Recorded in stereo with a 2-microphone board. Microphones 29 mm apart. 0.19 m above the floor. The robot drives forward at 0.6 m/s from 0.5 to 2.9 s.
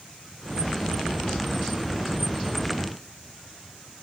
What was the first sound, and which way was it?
Only background noise.